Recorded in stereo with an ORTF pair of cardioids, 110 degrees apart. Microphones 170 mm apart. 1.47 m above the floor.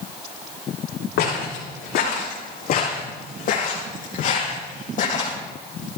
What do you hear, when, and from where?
1.2 s footsteps: 70° left, 6 m; by 5.4 s 50° left, 4 m